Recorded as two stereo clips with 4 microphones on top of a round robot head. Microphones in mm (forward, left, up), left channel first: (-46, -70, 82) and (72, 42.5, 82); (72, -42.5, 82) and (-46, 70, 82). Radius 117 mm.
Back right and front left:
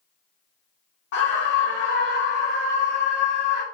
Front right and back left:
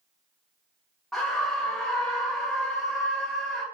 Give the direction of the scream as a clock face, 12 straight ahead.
4 o'clock.